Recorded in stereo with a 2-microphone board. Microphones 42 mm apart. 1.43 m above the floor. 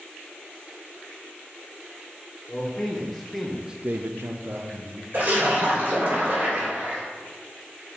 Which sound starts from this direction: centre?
A man speaking, at 2.5 s.